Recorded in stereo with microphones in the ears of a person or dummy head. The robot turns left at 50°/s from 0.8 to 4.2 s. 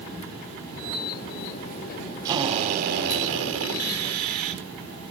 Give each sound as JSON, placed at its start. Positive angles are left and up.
{"t": 2.2, "sound": "a drill", "azimuth_deg": -20, "distance_m": 4.0}